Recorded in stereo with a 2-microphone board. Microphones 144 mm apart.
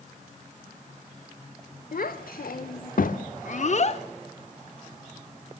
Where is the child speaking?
80° left, 1.5 m; by 4.0 s 45° left (ahead or behind), 0.9 m.